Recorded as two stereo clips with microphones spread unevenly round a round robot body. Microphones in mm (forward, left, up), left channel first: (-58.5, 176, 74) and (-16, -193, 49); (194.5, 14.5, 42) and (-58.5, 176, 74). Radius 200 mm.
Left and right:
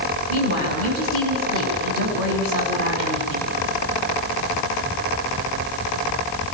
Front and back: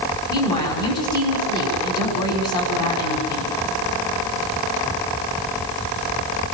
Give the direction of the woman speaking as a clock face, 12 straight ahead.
1 o'clock.